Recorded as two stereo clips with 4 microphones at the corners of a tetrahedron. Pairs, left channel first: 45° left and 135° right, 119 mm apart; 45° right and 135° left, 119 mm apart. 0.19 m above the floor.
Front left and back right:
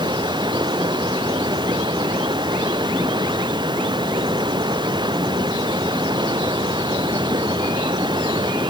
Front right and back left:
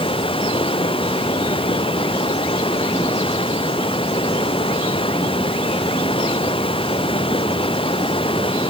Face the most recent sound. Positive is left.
turn(degrees=-85)